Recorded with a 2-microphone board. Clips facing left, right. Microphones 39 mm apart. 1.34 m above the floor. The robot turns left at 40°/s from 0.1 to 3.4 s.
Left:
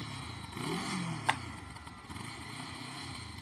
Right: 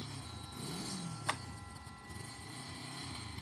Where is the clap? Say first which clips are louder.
Left 6 dB; 30° left (ahead or behind); by 1.4 s 25° left (ahead or behind).